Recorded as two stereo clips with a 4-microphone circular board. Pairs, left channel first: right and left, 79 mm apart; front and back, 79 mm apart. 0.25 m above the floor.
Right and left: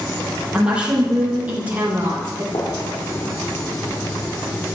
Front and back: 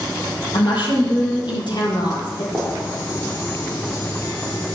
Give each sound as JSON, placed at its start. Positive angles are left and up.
{"t": 0.5, "sound": "a woman speaking", "azimuth_deg": 10, "distance_m": 8.5}
{"t": 2.5, "sound": "a gunshot", "azimuth_deg": -75, "distance_m": 7.0}